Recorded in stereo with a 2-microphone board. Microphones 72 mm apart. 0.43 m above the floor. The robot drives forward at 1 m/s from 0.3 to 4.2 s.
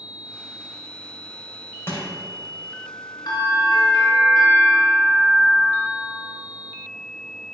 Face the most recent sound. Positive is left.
turn(degrees=60)  # may be behind; listen again after turning